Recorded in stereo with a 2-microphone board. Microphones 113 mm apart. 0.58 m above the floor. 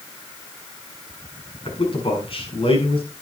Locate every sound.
1.6 s a man speaking: 55° left (ahead or behind), 7 m